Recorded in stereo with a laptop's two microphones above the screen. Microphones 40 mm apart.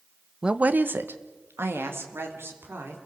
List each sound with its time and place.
0.4 s a woman speaking: 20° right (ahead or behind), 0.5 m; by 3.0 s 80° right, 3.5 m